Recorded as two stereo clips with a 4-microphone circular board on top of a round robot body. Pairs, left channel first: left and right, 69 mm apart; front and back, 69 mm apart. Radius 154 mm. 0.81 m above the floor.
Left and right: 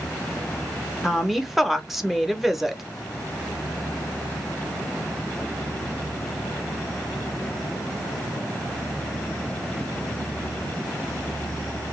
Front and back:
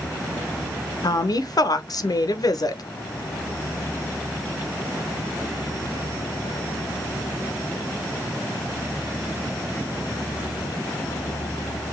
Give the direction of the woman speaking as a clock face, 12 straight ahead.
12 o'clock.